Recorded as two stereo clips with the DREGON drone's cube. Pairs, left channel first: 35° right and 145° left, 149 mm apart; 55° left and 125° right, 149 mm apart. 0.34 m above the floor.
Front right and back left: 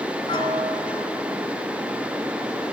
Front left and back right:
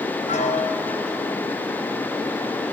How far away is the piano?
About 1.0 m.